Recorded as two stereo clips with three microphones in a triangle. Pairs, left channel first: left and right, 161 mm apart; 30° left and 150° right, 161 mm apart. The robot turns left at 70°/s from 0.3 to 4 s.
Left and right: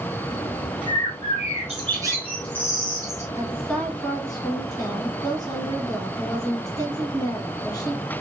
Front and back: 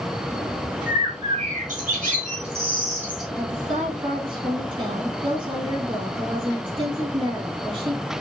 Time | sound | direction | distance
0.9 | a bird | 75° right | 2 m
3.4 | a woman speaking | 160° right | 2.5 m